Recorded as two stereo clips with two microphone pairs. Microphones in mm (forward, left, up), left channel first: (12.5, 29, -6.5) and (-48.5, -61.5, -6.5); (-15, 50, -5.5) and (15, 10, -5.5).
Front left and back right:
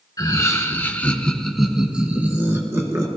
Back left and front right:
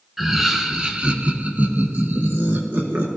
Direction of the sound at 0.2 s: 30° left.